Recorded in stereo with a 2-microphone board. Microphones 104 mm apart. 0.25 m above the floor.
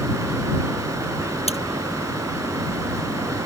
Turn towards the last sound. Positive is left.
turn(degrees=80)